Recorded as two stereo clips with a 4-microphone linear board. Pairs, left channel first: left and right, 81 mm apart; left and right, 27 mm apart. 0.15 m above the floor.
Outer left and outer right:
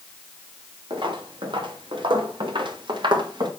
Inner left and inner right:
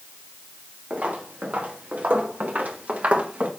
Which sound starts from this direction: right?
Footsteps, at 0.9 s.